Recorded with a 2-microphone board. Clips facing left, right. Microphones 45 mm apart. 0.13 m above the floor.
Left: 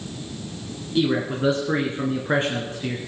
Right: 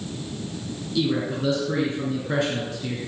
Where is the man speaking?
35° left (ahead or behind), 2 m.